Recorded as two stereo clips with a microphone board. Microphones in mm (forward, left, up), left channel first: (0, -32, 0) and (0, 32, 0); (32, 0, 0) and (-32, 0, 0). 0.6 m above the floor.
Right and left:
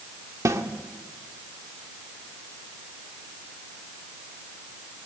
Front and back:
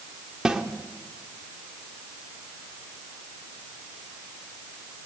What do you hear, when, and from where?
0.5 s a snare drum: 105° left, 1.7 m